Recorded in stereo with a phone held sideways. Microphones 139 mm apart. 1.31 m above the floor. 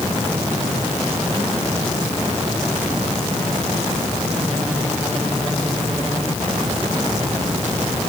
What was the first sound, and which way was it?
Only background noise.